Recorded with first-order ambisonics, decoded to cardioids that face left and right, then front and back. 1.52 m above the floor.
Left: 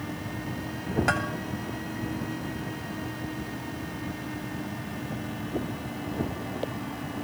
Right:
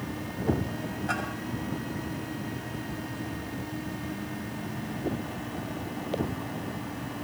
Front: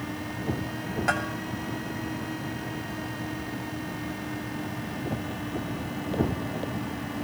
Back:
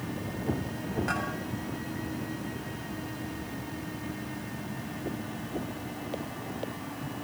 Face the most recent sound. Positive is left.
turn(degrees=65)